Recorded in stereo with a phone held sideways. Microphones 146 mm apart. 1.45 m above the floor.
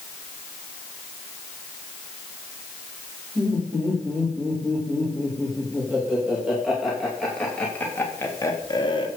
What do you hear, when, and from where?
3.4 s laughter: 20° right (ahead or behind), 4 m; by 9.1 s 35° left (ahead or behind), 1.5 m